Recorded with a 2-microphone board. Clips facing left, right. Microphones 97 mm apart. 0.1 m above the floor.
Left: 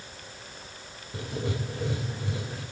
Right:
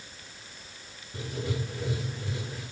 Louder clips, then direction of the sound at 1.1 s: Left 1 dB; 60° left (ahead or behind).